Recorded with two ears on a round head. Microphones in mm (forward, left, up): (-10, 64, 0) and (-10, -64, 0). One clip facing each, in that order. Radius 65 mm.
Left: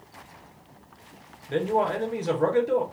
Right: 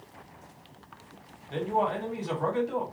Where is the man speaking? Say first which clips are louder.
Left 4 dB; 60° left (ahead or behind), 2.5 m.